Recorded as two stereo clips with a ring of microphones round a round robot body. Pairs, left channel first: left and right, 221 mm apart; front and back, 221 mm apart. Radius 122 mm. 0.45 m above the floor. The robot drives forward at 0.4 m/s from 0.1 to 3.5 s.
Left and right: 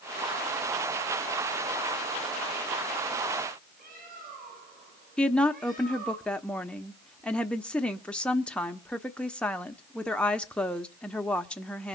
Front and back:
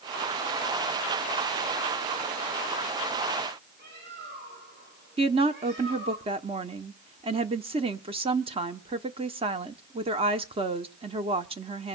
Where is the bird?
140° right, 9.5 m.